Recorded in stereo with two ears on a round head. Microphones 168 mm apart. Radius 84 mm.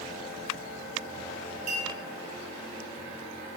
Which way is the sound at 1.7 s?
40° right (ahead or behind).